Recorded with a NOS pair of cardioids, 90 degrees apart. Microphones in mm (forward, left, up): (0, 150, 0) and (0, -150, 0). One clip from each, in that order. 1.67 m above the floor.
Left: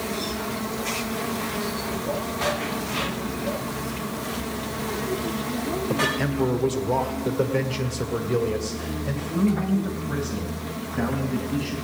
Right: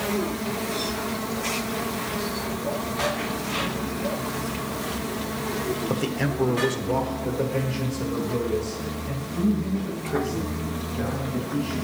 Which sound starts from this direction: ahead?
A man speaking, at 5.9 s.